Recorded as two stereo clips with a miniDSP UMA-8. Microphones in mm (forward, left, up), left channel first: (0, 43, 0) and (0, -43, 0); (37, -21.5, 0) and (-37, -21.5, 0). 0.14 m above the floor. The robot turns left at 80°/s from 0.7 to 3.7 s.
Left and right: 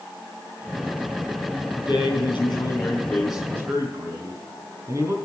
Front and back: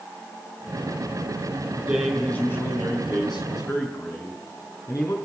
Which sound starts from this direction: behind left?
A man speaking, at 1.8 s.